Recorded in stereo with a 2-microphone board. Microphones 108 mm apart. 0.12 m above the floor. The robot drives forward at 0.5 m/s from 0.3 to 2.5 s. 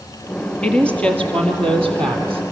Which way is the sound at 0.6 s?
10° left (ahead or behind).